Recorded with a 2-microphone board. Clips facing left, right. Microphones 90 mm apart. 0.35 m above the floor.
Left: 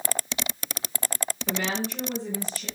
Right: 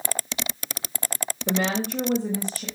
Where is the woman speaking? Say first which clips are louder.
Right 5 dB; 50° right (ahead or behind), 1.3 m; by 2.6 s 55° right (ahead or behind), 1.8 m.